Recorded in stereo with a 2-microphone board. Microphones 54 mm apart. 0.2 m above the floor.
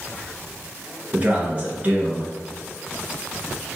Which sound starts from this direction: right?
A man speaking, at 1.1 s.